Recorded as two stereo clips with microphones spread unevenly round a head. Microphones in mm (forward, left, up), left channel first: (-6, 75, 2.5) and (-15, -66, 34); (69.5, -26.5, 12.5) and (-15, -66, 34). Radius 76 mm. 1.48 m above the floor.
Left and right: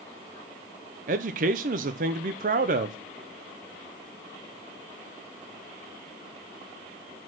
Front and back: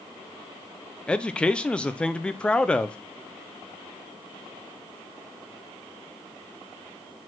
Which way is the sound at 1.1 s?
55° right.